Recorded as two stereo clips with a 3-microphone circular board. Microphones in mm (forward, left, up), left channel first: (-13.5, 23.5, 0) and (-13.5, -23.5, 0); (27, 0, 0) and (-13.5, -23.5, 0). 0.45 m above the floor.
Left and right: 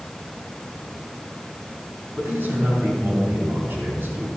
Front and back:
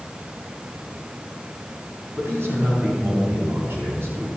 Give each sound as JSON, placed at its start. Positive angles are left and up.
{"t": 2.2, "sound": "a man speaking", "azimuth_deg": -125, "distance_m": 4.0}